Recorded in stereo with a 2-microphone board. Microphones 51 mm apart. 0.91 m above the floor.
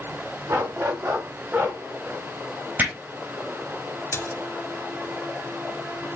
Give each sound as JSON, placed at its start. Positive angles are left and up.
{"t": 0.5, "sound": "a dog barking", "side_deg": -60, "distance_m": 1.9}
{"t": 2.8, "sound": "hammering", "side_deg": -35, "distance_m": 4.5}
{"t": 4.1, "sound": "a splash", "side_deg": 50, "distance_m": 1.4}